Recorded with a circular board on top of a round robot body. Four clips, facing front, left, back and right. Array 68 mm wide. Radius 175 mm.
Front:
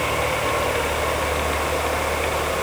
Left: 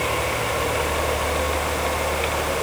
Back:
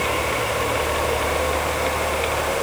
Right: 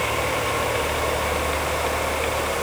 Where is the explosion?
I don't hear an explosion.